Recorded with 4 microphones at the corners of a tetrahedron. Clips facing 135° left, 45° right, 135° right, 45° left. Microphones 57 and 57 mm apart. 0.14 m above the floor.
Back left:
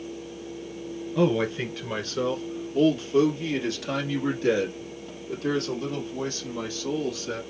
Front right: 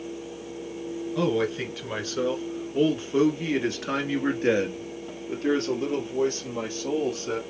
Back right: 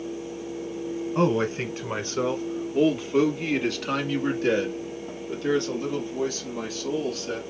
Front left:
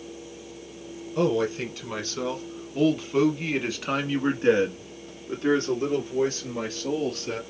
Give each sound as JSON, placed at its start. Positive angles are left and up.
{"t": 1.1, "sound": "a man speaking", "azimuth_deg": -135, "distance_m": 1.4}